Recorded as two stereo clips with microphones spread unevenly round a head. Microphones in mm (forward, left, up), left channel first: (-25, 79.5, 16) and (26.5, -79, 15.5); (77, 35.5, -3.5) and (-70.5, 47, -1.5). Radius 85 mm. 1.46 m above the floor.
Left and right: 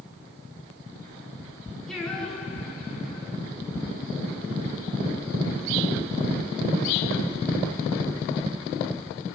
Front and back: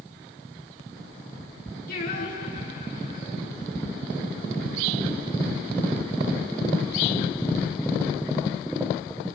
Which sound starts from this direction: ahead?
Singing, at 1.9 s.